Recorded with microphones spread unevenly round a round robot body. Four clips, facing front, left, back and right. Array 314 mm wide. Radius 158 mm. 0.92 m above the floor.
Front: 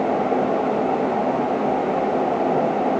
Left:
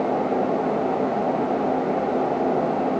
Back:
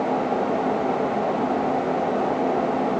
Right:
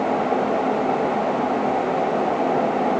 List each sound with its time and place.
Only background noise.